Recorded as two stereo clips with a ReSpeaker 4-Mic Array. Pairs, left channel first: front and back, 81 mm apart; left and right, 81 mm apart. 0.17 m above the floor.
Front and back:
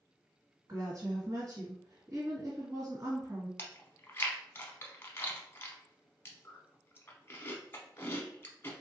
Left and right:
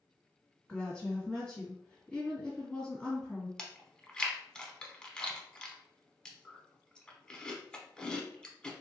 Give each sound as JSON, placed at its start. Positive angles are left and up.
{"t": 0.7, "sound": "a woman speaking", "azimuth_deg": 165, "distance_m": 1.9}
{"t": 3.6, "sound": "chewing", "azimuth_deg": 25, "distance_m": 0.7}